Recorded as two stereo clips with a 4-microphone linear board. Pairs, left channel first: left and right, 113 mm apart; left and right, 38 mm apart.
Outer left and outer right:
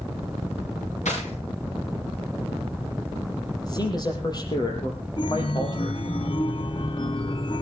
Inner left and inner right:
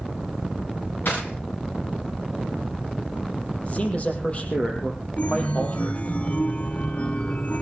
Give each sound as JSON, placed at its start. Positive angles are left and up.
{"t": 1.1, "sound": "breaking glass", "side_deg": 85, "distance_m": 9.5}
{"t": 3.6, "sound": "a man speaking", "side_deg": 35, "distance_m": 6.0}
{"t": 5.2, "sound": "a chime", "side_deg": 50, "distance_m": 0.9}